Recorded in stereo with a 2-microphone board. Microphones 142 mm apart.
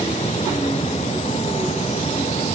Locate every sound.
Only background noise.